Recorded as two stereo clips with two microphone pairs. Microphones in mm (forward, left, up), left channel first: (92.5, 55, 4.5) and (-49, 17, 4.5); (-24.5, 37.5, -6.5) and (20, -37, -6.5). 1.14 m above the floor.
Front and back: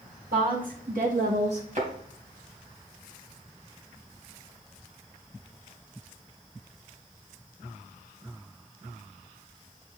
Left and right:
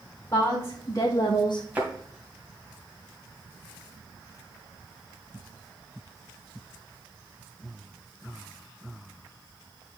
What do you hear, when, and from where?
0.3 s a woman speaking: 175° right, 2 m; by 1.6 s 140° left, 0.7 m
1.8 s a thud: 130° right, 2 m